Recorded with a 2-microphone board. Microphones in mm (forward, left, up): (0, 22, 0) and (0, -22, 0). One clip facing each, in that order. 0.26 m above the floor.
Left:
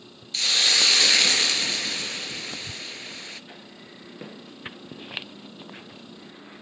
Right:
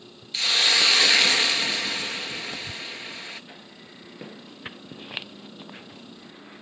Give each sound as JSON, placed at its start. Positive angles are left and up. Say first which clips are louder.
{"t": 0.3, "sound": "a hiss", "louder": "right 1 dB", "side_deg": -10, "distance_m": 0.8}